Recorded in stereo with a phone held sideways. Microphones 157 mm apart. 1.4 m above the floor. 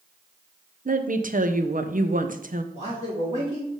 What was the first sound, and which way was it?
A woman speaking, 60° right (ahead or behind).